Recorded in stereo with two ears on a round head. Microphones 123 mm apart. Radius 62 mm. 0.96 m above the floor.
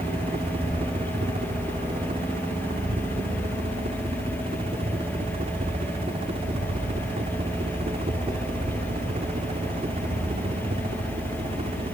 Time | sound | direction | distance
0.0 | a helicopter | 45° right (ahead or behind) | ?